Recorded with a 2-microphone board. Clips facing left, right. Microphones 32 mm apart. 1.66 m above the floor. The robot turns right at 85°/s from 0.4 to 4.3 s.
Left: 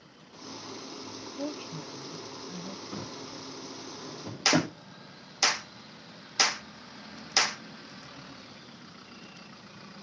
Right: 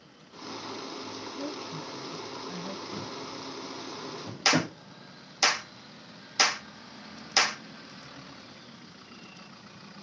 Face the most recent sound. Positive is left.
turn(degrees=-10)  # may be behind; listen again after turning